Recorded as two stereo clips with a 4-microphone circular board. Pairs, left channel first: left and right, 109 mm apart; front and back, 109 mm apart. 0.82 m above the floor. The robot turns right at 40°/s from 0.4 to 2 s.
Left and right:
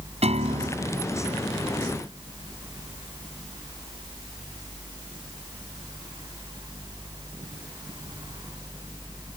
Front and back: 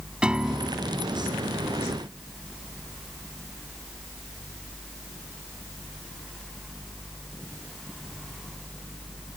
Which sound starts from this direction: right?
A piano, at 0.2 s.